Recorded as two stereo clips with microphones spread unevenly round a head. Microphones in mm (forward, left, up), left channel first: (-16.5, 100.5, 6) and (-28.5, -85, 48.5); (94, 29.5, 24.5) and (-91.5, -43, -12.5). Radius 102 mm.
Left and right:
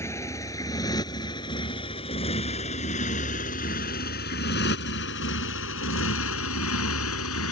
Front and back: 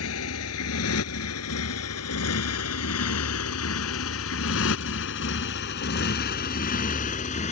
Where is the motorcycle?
10° left; by 7.5 s 80° left.